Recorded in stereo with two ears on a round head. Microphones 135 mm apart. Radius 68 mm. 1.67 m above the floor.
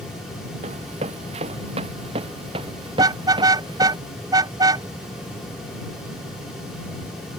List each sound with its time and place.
0.6 s running footsteps: 45° right (ahead or behind); by 4.0 s 30° right (ahead or behind)
3.0 s a car horn: 25° right (ahead or behind)